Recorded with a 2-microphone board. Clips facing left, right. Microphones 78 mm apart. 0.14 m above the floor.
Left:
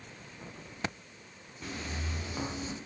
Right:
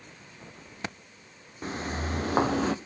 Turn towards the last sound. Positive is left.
turn(degrees=-85)